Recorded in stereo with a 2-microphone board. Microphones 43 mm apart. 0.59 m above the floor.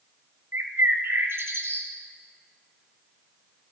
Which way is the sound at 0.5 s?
75° right (ahead or behind).